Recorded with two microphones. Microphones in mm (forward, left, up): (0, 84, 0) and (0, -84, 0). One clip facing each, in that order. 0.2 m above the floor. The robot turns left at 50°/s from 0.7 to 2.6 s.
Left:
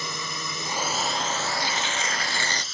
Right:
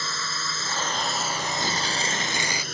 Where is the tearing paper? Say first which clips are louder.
Right 1 dB; 120° right; by 2.6 s 170° right.